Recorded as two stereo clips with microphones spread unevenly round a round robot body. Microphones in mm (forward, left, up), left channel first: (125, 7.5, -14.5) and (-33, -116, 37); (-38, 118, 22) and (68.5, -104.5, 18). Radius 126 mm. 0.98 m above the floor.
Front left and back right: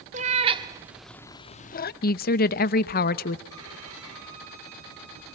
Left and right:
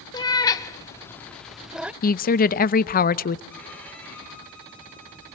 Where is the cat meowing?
175° right, 0.8 m; by 1.9 s 20° left, 0.5 m.